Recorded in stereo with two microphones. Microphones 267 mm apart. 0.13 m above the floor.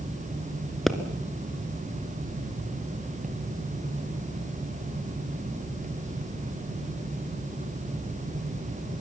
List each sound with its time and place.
0.9 s a pop: centre (ahead or behind), 1.4 m